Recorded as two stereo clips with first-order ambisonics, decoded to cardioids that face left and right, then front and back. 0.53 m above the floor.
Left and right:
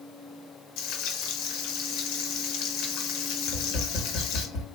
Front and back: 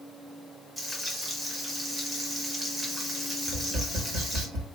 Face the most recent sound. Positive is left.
turn(degrees=140)